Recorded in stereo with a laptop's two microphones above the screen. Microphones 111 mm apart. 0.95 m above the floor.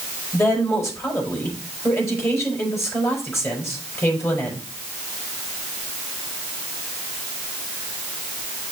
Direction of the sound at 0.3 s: 25° left (ahead or behind).